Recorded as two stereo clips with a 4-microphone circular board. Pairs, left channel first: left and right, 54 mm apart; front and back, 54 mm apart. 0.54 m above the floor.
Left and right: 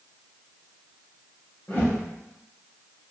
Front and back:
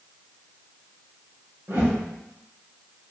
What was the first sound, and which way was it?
A whoosh, 160° left.